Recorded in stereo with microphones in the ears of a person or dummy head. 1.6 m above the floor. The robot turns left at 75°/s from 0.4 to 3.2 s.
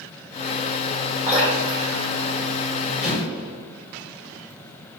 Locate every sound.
1.3 s dripping: 10° right (ahead or behind), 2.0 m; by 3.0 s 60° left (ahead or behind), 2.0 m
3.0 s an explosion: 40° left (ahead or behind), 1.4 m; by 3.5 s 25° left (ahead or behind), 1.4 m